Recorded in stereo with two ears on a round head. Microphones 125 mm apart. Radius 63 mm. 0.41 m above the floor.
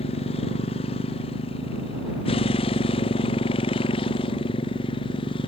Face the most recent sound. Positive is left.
turn(degrees=40)  # may be behind; listen again after turning